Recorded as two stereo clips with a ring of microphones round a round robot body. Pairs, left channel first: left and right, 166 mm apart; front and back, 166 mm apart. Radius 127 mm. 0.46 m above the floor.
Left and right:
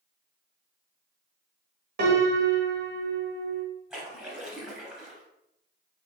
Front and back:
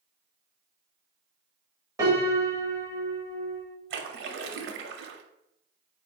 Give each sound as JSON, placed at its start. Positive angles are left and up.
{"t": 2.0, "sound": "a piano", "azimuth_deg": -105, "distance_m": 1.2}
{"t": 3.9, "sound": "a splash", "azimuth_deg": -175, "distance_m": 0.5}